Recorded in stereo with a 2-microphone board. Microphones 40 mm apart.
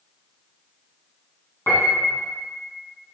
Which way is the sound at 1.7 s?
70° left (ahead or behind).